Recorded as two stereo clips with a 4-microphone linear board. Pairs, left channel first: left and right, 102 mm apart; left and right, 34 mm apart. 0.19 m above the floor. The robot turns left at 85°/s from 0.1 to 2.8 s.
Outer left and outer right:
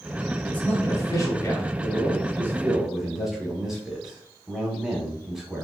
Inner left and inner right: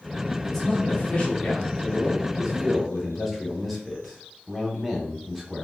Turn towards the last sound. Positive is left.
turn(degrees=-5)  # may be behind; listen again after turning